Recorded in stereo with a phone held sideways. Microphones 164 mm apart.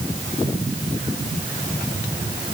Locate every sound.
Only background noise.